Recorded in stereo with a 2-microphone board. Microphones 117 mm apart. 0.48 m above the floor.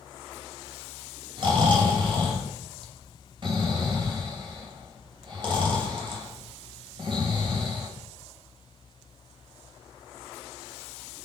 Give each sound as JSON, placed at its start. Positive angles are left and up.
{"t": 1.4, "sound": "snoring", "side_deg": -45, "distance_m": 3.0}